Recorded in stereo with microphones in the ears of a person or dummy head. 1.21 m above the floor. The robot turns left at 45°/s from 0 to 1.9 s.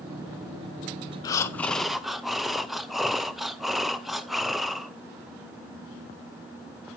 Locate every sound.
1.2 s breathing: 30° left (ahead or behind), 0.5 m; by 4.9 s centre (ahead or behind), 0.5 m